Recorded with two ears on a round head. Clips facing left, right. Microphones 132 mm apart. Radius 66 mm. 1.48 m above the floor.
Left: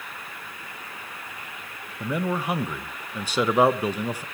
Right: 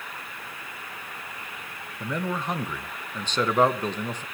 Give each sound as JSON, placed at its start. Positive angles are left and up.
{"t": 2.0, "sound": "a man speaking", "side_deg": 10, "distance_m": 1.1}